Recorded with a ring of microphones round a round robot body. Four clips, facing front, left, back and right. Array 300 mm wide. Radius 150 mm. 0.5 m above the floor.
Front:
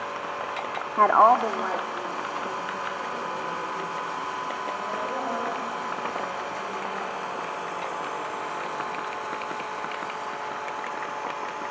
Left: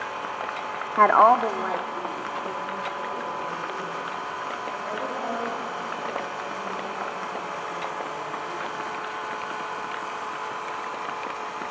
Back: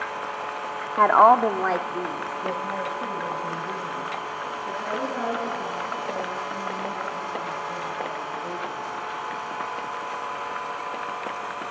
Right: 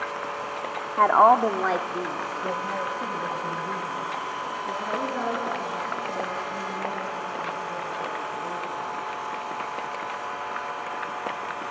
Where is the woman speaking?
95° left, 0.8 m; by 8.8 s 125° right, 11 m.